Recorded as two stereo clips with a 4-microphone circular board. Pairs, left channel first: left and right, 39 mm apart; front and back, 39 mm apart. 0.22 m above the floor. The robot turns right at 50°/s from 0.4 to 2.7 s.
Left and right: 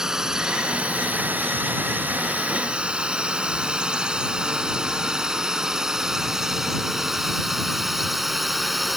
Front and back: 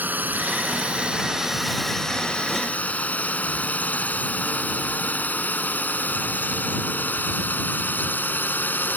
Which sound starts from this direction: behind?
A drone, at 0.0 s.